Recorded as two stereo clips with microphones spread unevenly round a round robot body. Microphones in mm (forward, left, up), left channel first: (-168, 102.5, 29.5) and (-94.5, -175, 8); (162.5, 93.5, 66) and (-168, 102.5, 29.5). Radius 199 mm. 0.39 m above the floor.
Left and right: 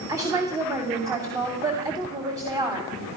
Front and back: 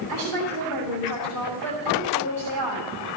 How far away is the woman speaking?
About 3 m.